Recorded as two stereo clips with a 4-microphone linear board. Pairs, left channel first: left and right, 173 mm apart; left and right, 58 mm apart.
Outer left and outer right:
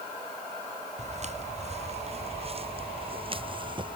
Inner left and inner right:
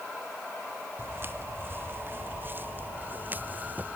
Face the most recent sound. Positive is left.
turn(degrees=-30)  # may be behind; listen again after turning